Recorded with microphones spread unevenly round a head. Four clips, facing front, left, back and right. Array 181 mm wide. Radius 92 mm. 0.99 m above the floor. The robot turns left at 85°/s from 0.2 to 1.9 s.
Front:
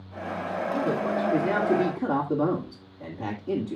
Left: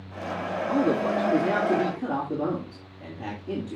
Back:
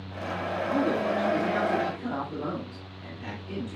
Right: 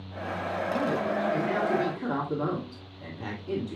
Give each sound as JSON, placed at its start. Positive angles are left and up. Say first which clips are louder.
{"t": 0.7, "sound": "a man speaking", "louder": "left 6 dB, back 1 dB", "azimuth_deg": 125, "distance_m": 3.0}